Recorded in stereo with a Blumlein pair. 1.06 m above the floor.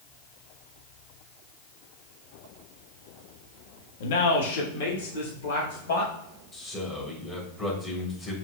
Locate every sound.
4.0 s a man speaking: 55° left, 1.3 m
6.5 s a man speaking: 15° left, 3 m